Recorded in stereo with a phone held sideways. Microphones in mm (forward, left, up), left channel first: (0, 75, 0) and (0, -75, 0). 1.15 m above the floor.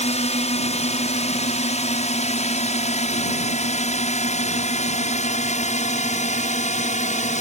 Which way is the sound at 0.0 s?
50° left (ahead or behind).